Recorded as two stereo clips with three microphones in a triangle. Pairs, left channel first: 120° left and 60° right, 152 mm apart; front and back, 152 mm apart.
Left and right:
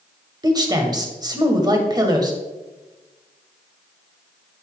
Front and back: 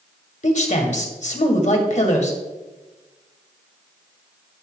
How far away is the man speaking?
About 2 m.